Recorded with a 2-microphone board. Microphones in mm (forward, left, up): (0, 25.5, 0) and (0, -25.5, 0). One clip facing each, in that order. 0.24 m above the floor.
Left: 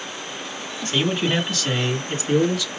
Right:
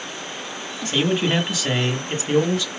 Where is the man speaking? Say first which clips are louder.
Right 1 dB; centre (ahead or behind), 1.4 m; by 2.7 s 40° right (ahead or behind), 1.8 m.